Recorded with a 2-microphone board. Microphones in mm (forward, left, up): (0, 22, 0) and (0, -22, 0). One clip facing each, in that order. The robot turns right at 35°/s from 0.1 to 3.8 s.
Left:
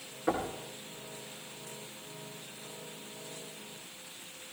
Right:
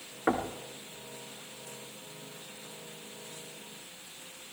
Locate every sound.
0.3 s knocking: 45° right (ahead or behind), 1.9 m; by 0.5 s 40° right (ahead or behind), 1.9 m